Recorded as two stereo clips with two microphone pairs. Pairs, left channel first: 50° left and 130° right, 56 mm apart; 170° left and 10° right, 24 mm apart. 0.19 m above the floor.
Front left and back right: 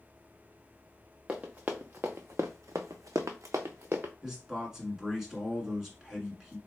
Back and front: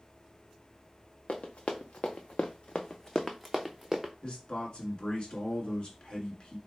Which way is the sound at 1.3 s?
165° left.